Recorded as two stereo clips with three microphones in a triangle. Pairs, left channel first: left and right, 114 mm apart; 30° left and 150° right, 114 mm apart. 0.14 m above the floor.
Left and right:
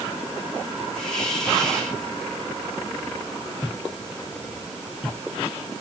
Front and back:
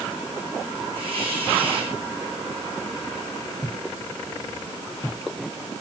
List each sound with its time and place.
0.9 s a hiss: 175° left, 6.5 m